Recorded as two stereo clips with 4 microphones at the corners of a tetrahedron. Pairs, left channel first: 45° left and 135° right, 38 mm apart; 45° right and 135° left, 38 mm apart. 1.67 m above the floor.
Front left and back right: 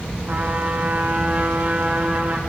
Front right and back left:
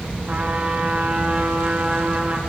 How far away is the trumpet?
About 1.8 m.